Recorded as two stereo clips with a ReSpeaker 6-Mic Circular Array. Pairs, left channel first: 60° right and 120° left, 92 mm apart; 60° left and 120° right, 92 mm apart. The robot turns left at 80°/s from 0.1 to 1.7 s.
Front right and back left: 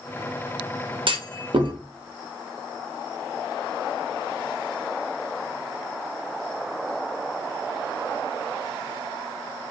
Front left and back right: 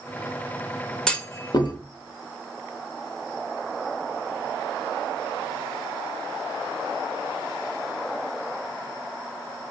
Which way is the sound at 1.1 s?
145° left.